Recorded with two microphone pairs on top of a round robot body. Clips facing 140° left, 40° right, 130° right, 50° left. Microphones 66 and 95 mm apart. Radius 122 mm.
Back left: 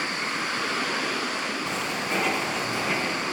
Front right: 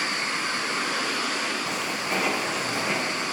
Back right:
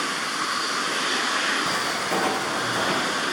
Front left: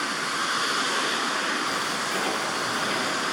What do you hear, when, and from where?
1.7 s footsteps: 120° right, 3 m